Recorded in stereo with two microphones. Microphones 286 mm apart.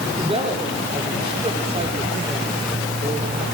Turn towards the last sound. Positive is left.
turn(degrees=-20)  # may be behind; listen again after turning